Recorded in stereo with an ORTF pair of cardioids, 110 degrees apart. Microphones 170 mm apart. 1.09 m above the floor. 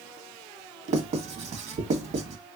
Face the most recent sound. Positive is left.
turn(degrees=-40)